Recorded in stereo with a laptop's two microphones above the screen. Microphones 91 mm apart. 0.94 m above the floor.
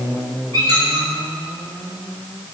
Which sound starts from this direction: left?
A squeak, at 0.5 s.